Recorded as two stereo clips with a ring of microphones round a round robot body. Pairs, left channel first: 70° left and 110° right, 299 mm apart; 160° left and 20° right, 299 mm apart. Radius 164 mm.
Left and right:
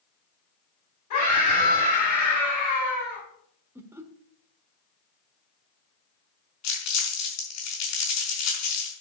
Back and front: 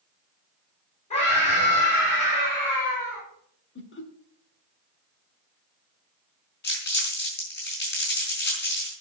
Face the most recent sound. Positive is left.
turn(degrees=100)